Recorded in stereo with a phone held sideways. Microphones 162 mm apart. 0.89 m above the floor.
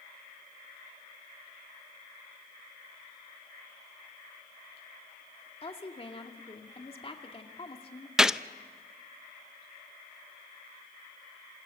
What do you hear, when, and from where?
5.6 s a woman speaking: 35° left (ahead or behind), 2.5 m
8.2 s a gunshot: 5° right (ahead or behind), 0.5 m